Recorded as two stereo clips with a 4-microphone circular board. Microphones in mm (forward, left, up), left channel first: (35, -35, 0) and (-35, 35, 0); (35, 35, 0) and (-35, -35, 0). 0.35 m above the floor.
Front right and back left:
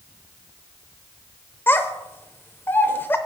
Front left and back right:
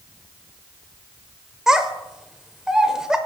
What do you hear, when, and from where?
1.7 s a child speaking: 60° right, 0.9 m